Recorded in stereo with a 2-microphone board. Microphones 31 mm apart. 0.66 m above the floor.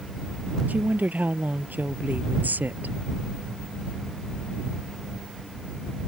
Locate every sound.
0.7 s a woman speaking: 65° right (ahead or behind); by 3.0 s 75° right (ahead or behind)